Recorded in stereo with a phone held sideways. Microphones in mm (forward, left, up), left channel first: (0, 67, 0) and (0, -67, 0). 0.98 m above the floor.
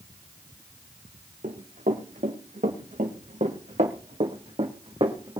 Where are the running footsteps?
75° right (ahead or behind), 3.5 m; by 5.4 s 35° right (ahead or behind), 3 m.